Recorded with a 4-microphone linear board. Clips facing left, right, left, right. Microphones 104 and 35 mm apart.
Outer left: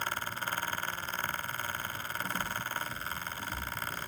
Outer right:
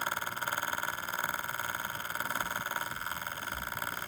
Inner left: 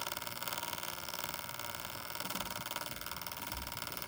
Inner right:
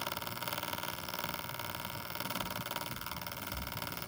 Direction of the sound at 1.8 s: 75° left (ahead or behind).